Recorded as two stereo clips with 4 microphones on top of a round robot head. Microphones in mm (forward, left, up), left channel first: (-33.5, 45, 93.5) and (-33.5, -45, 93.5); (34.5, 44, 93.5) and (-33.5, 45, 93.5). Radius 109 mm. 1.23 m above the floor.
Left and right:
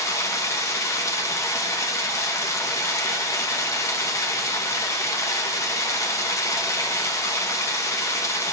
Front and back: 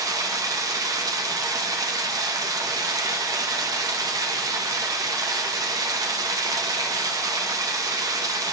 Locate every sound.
0.0 s running water: 145° left, 0.9 m